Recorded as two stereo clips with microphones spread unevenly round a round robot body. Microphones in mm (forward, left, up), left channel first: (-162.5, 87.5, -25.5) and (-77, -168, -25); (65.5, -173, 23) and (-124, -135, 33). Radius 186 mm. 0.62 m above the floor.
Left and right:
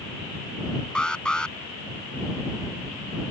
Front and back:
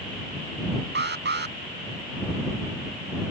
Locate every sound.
0.9 s an alarm: 165° right